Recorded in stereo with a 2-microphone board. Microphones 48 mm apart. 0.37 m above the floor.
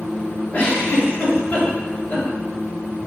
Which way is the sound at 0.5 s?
30° left (ahead or behind).